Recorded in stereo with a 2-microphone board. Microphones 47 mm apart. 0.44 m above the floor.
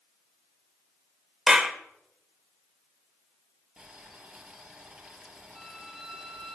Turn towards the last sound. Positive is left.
turn(degrees=-10)  # may be behind; listen again after turning